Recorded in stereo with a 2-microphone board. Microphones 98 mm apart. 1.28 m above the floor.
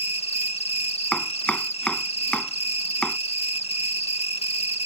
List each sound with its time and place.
0.0 s an insect: 65° left (ahead or behind)
1.1 s chopping: 10° left (ahead or behind)